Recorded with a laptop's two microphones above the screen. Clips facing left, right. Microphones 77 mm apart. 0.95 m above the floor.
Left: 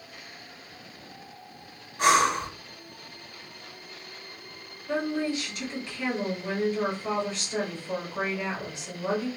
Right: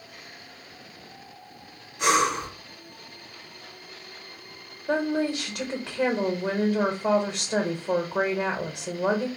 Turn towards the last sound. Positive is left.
turn(degrees=-60)  # may be behind; listen again after turning